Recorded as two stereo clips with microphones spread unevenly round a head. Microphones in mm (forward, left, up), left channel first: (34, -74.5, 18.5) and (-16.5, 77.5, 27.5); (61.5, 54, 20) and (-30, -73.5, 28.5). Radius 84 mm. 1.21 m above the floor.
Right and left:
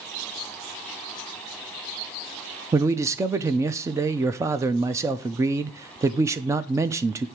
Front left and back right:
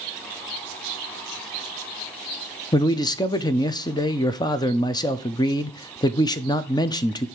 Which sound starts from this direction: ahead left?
A man speaking, at 2.7 s.